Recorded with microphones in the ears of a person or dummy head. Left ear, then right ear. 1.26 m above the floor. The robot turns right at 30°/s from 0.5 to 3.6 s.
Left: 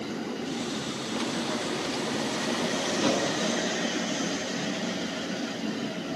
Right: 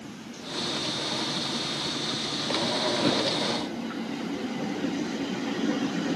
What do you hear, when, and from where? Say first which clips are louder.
3.0 s a whoosh: left 1 dB; centre (ahead or behind), 2.5 m; by 3.2 s 10° right (ahead or behind), 2.5 m